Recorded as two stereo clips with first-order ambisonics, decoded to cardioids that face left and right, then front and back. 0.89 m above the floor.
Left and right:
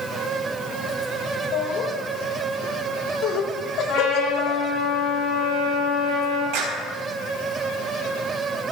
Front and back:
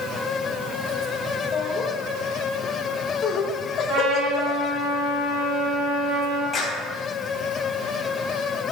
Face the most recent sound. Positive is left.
turn(degrees=-70)